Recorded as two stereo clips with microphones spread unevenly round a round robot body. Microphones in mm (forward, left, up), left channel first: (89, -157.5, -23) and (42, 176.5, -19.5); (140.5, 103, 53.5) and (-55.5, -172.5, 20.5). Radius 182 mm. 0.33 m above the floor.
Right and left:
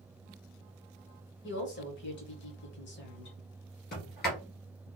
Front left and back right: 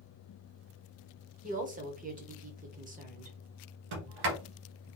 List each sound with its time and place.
1.4 s a woman speaking: 95° right, 1.0 m
3.9 s a sliding door: 150° right, 1.3 m